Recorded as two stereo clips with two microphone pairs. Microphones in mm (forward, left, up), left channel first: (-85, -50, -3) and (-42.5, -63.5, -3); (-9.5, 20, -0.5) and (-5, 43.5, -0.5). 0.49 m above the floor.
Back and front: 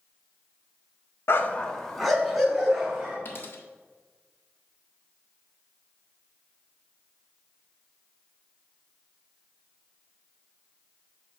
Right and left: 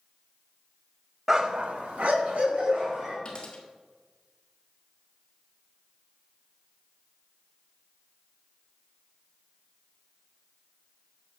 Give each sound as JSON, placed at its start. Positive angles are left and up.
{"t": 1.3, "sound": "a dog barking", "azimuth_deg": 150, "distance_m": 0.6}
{"t": 3.2, "sound": "a dropped coin", "azimuth_deg": -160, "distance_m": 1.4}